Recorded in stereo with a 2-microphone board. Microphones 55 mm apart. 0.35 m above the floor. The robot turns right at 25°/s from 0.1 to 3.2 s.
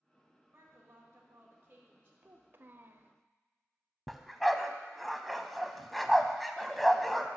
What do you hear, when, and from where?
0.5 s a woman speaking: 85° right, 1.9 m; by 2.1 s 45° right, 1.9 m
2.2 s a child speaking: 40° right (ahead or behind), 0.6 m
4.1 s a dog barking: centre (ahead or behind), 0.6 m